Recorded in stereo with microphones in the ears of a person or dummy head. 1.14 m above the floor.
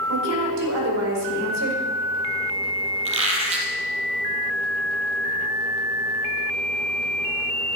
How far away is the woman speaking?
About 4.5 m.